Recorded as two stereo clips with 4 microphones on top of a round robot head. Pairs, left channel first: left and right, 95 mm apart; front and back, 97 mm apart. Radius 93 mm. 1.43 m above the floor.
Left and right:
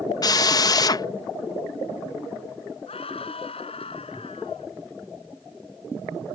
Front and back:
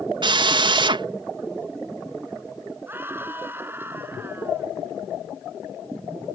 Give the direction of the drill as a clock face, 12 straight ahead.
7 o'clock.